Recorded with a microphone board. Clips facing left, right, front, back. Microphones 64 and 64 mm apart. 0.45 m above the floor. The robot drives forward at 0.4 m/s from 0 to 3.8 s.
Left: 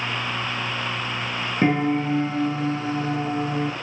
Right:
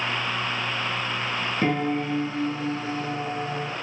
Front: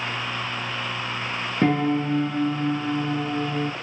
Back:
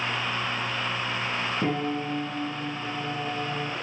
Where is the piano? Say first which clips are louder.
Left 5 dB, front 10 dB; 30° left, 2.0 m; by 3.7 s 50° left, 1.3 m.